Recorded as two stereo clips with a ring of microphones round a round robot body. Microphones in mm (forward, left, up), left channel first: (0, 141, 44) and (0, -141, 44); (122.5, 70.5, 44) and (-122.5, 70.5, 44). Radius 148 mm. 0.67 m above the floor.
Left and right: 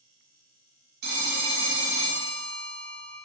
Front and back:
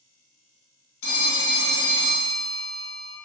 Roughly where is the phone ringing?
Ahead right.